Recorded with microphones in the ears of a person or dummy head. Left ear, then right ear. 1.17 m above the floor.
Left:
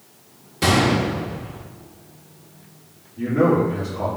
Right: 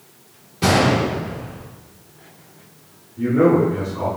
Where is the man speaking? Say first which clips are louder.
Right 3 dB; 45° left (ahead or behind), 1.9 m.